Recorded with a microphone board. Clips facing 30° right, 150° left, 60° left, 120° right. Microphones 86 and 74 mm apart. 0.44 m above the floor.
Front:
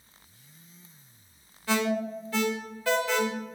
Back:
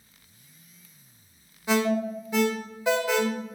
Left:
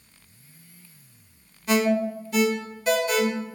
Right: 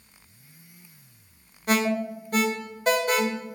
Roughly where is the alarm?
Behind right.